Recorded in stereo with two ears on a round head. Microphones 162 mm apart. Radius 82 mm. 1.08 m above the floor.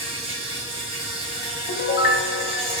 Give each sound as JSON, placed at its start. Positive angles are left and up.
{"t": 0.0, "sound": "an insect", "side_deg": -30, "distance_m": 0.9}
{"t": 1.7, "sound": "a piano", "side_deg": 55, "distance_m": 0.5}